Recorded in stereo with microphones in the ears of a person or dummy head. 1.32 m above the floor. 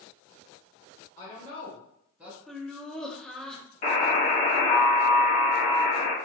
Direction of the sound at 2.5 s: Centre (ahead or behind).